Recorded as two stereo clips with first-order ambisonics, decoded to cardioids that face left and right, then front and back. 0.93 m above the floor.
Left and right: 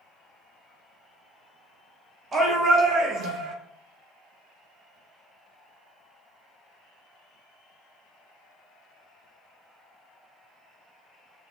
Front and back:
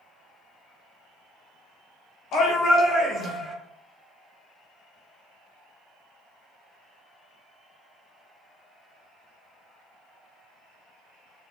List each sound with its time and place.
2.3 s a shout: 25° right, 1.1 m; by 3.5 s 70° right, 1.3 m